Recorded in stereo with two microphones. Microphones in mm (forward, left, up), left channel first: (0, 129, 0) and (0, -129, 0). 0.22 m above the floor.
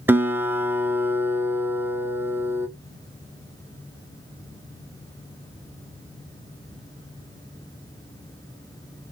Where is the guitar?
10° right (ahead or behind), 0.7 m.